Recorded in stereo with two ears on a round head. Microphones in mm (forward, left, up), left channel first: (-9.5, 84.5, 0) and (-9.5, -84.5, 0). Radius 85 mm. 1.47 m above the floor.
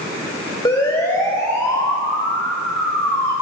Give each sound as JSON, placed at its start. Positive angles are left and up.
{"t": 0.7, "sound": "a siren", "side_deg": 20, "distance_m": 2.5}